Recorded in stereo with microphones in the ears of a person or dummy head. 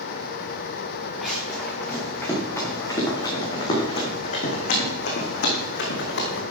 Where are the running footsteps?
5° left (ahead or behind), 6.5 m; by 6.4 s 70° left (ahead or behind), 5 m.